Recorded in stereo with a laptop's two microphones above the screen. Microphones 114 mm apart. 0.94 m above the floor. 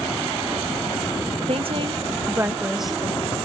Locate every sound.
1.5 s a woman speaking: 60° right (ahead or behind), 1.4 m; by 3.4 s 10° left (ahead or behind), 1.9 m